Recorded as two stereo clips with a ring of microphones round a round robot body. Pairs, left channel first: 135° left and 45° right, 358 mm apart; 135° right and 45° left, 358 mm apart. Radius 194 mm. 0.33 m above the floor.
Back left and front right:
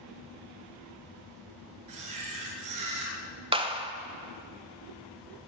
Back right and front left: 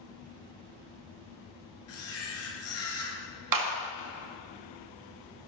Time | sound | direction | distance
1.9 | a camera shutter | 85° right | 4.5 m
3.5 | a clap | 30° left | 1.5 m